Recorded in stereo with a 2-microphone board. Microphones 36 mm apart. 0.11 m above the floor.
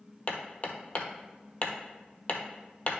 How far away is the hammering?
About 1.0 m.